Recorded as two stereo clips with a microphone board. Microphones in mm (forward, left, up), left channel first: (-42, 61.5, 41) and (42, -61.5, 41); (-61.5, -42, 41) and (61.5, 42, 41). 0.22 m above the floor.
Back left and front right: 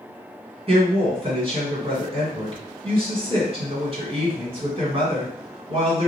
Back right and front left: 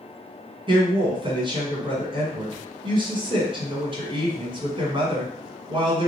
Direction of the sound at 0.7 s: 15° right.